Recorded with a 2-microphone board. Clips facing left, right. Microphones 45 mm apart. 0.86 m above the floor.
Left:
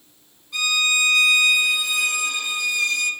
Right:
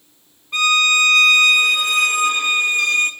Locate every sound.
0.5 s a violin: 45° right (ahead or behind), 0.6 m